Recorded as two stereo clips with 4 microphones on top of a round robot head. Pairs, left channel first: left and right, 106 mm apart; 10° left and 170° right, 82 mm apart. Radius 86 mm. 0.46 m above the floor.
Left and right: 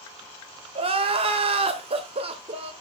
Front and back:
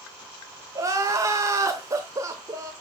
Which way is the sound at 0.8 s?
115° right.